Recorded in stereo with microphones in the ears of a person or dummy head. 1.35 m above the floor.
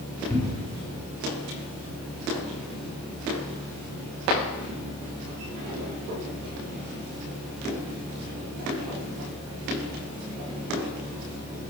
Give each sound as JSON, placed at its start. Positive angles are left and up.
{"t": 0.3, "sound": "a cupboard door", "side_deg": 15, "distance_m": 1.8}